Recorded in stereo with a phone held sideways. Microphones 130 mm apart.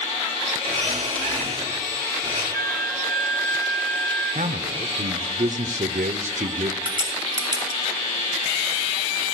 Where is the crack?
35° right (ahead or behind), 3.5 m.